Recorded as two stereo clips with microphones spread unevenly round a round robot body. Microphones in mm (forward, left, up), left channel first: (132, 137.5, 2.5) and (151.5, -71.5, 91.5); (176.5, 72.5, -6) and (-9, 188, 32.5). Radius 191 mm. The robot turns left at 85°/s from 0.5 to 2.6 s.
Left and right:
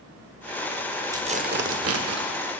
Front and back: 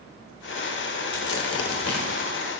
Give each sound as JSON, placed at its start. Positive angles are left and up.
{"t": 1.1, "sound": "tearing paper", "azimuth_deg": -5, "distance_m": 1.5}